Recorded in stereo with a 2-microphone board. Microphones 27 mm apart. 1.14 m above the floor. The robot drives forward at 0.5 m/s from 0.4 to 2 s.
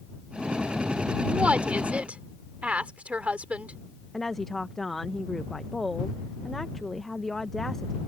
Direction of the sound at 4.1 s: 15° left (ahead or behind).